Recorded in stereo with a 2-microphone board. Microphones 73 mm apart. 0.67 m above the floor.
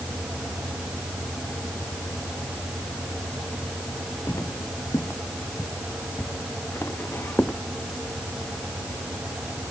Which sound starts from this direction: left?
Footsteps, at 4.3 s.